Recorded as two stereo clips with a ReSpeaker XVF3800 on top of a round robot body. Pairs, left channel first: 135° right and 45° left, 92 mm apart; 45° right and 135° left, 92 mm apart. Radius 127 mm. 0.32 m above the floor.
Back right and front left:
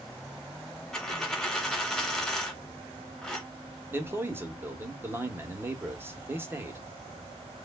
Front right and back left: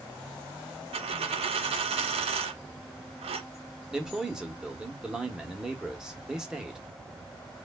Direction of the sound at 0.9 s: 140° left.